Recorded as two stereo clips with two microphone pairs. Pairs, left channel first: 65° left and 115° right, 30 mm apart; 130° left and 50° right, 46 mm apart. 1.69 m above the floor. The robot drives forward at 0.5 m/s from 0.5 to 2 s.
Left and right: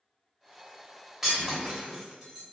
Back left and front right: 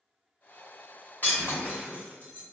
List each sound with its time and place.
1.2 s breaking glass: 170° left, 1.6 m